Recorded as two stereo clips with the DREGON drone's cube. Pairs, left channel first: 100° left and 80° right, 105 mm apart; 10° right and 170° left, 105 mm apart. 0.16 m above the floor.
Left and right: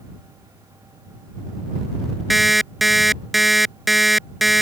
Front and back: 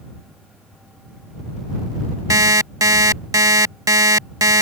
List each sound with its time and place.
2.3 s an alarm clock: 170° right